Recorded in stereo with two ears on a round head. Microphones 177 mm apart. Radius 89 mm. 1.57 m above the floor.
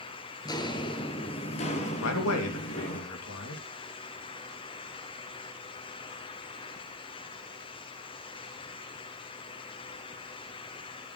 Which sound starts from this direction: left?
A man speaking, at 2.0 s.